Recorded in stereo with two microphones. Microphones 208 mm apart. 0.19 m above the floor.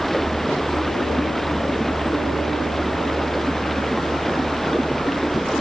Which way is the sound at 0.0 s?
Centre (ahead or behind).